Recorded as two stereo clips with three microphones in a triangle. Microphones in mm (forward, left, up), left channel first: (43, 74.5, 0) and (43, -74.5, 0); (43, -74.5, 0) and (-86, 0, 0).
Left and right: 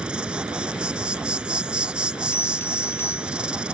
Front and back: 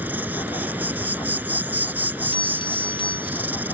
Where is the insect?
160° right.